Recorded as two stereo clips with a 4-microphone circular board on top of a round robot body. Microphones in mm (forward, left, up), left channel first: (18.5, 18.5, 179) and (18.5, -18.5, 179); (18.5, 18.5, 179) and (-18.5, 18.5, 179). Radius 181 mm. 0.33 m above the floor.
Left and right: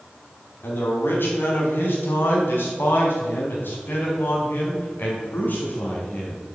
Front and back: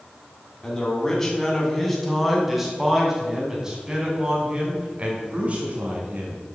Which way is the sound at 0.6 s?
75° left.